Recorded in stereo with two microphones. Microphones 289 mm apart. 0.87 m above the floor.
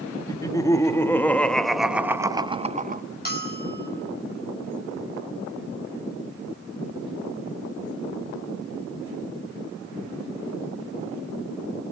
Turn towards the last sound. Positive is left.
turn(degrees=30)  # may be behind; listen again after turning